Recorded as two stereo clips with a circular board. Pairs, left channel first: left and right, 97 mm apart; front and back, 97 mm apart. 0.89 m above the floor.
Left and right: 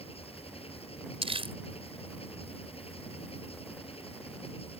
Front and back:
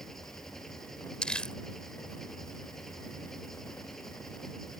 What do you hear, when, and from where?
0.0 s an engine running: 85° left
1.2 s crumpling: 80° right